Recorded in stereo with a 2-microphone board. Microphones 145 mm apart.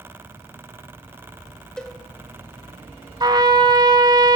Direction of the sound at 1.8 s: 5° left (ahead or behind).